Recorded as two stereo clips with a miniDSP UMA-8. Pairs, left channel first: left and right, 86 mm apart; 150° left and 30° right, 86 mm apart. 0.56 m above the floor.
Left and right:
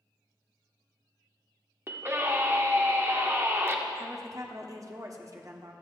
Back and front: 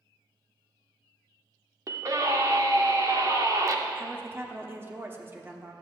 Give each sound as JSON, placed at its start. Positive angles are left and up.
{"t": 1.9, "sound": "a scream", "azimuth_deg": -45, "distance_m": 1.2}
{"t": 4.0, "sound": "a woman speaking", "azimuth_deg": -75, "distance_m": 1.1}